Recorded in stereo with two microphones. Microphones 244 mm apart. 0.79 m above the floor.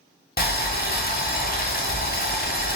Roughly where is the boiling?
Left.